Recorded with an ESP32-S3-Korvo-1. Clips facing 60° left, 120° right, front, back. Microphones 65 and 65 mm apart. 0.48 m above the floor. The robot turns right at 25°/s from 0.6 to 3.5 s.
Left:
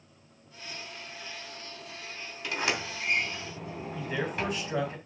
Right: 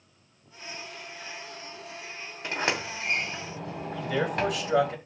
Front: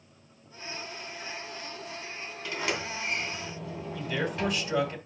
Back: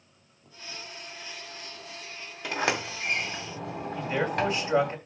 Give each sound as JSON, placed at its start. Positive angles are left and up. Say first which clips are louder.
{"t": 2.4, "sound": "a sliding door", "louder": "right 2 dB, back 4 dB", "azimuth_deg": 180, "distance_m": 2.0}
{"t": 4.0, "sound": "a man speaking", "louder": "right 5 dB, back 4 dB", "azimuth_deg": -120, "distance_m": 2.5}